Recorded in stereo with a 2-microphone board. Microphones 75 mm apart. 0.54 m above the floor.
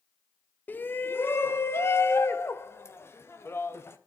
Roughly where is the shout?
Left.